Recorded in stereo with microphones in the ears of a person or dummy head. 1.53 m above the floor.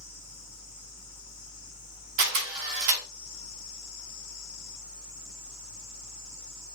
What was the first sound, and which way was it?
A fan, 40° left (ahead or behind).